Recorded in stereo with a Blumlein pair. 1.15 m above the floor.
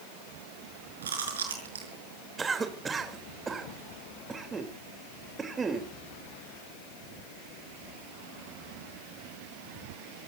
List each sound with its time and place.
1.0 s chewing: 70° right, 5.5 m
2.4 s a cough: 15° right, 3.5 m